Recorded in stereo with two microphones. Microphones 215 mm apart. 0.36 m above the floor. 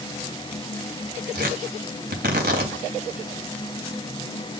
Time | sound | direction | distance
1.4 | tearing paper | 50° right (ahead or behind) | 2.5 m